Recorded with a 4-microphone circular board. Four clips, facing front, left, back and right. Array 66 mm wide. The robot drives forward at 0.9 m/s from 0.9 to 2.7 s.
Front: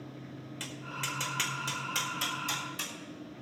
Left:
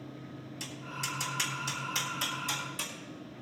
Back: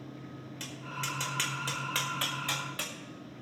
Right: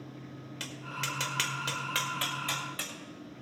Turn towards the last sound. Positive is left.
turn(degrees=-145)